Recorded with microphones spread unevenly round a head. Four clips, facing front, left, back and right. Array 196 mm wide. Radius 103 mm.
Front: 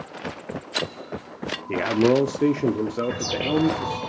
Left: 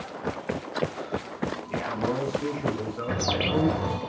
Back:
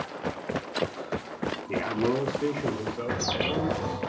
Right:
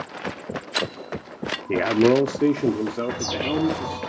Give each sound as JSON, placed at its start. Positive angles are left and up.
{"t": 1.7, "sound": "a man speaking", "azimuth_deg": -70, "distance_m": 0.6}
{"t": 3.1, "sound": "a bird", "azimuth_deg": 100, "distance_m": 3.0}